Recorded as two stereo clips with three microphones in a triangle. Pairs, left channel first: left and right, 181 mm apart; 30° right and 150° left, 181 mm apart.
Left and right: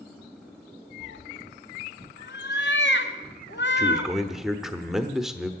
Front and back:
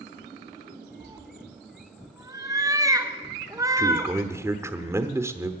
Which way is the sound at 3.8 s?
170° right.